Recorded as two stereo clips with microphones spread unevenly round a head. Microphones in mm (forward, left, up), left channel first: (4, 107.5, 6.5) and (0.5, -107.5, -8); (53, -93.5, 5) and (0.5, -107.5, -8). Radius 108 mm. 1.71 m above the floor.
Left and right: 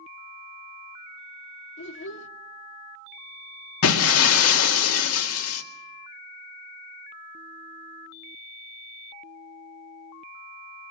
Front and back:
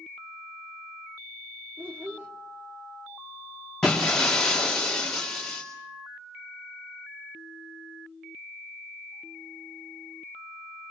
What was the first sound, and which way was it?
A child speaking, 115° left.